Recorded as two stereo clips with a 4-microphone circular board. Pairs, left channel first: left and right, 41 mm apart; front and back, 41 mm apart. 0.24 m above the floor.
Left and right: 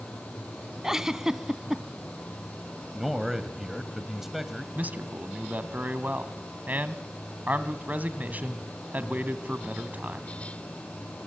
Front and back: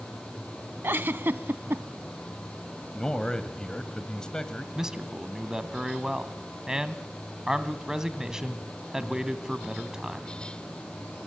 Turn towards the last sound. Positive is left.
turn(degrees=-110)